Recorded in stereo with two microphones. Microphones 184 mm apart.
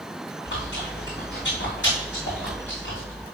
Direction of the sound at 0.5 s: 85° left.